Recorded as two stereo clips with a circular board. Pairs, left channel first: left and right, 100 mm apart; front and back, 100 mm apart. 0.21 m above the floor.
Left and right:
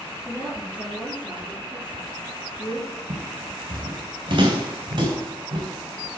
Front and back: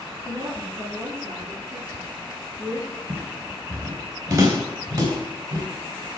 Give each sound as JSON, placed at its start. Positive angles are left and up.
{"t": 0.2, "sound": "a woman speaking", "azimuth_deg": 160, "distance_m": 2.5}
{"t": 3.1, "sound": "footsteps", "azimuth_deg": -120, "distance_m": 2.5}